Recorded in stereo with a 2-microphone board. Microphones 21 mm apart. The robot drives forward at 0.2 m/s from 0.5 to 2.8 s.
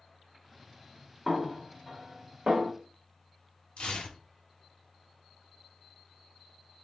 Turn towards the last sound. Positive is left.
turn(degrees=60)  # may be behind; listen again after turning